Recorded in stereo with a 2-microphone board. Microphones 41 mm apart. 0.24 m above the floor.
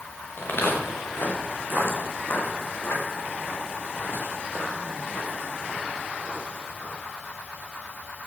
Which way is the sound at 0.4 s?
60° left (ahead or behind).